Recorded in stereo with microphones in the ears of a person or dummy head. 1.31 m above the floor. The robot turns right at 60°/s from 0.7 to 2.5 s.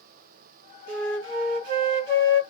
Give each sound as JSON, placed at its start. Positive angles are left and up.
{"t": 0.9, "sound": "a flute", "azimuth_deg": -110, "distance_m": 1.0}